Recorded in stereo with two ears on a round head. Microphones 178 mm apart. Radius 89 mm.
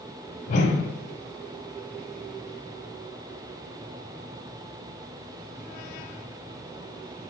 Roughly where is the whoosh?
Left.